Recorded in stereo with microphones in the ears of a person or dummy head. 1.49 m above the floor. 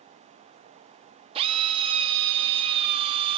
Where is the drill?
25° right (ahead or behind), 1.7 m.